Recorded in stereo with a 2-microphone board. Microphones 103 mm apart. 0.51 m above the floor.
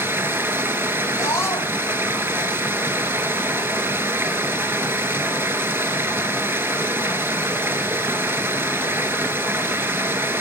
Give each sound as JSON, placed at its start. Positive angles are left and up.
{"t": 0.0, "sound": "running water", "side_deg": -20, "distance_m": 1.1}
{"t": 1.2, "sound": "a scream", "side_deg": 30, "distance_m": 2.5}